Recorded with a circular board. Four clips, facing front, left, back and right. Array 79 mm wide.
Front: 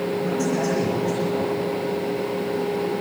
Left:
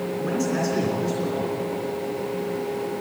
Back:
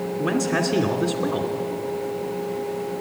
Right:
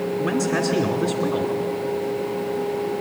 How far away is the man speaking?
About 2.5 m.